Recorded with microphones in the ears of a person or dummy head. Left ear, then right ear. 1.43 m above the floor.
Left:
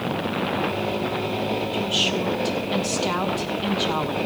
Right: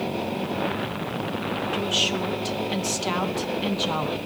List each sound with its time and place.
1.7 s a woman speaking: 10° right (ahead or behind), 1.0 m